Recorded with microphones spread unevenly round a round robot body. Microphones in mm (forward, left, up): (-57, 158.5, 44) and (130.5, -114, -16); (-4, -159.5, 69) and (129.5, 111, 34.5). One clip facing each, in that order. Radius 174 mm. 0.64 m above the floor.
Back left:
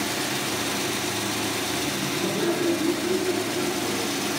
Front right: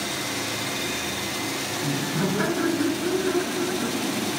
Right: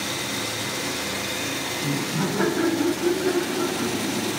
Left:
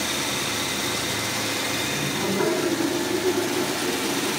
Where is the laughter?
70° right, 7 m; by 4.3 s 80° right, 7.5 m.